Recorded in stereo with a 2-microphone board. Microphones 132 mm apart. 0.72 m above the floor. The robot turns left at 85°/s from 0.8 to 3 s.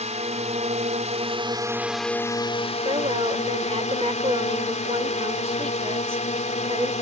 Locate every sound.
0.0 s a drone: 80° right; by 7.0 s 95° left
2.9 s a woman speaking: 40° right (ahead or behind); by 6.9 s 50° right (ahead or behind)